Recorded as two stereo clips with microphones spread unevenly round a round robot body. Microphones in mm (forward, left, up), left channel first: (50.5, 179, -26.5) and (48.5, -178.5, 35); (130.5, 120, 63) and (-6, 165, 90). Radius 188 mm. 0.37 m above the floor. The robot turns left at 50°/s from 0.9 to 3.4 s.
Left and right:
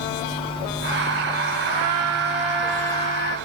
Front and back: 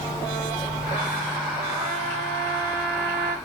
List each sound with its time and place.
1.7 s a trumpet: 125° right, 0.6 m; by 3.4 s 150° left, 0.6 m